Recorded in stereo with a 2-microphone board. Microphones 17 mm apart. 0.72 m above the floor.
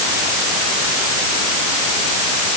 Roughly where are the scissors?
No scissors in this recording.